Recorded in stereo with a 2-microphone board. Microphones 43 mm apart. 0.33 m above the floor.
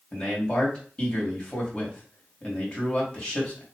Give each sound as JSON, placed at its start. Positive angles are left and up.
{"t": 0.1, "sound": "a man speaking", "side_deg": 20, "distance_m": 2.0}